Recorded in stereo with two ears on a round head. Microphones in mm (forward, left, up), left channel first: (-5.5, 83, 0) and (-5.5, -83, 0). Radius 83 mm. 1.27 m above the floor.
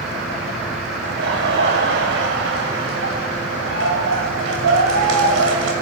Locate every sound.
1.0 s laughter: 70° right (ahead or behind), 7.5 m; by 5.7 s 85° right, 7 m